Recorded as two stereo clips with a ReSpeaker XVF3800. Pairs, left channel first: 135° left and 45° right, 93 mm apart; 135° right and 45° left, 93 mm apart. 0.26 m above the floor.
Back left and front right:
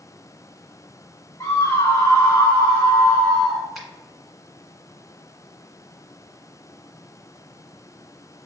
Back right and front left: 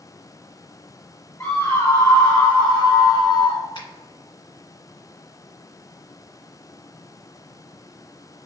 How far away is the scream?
About 1.8 m.